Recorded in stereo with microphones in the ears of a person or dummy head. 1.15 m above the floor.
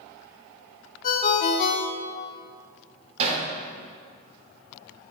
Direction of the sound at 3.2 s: 40° right (ahead or behind).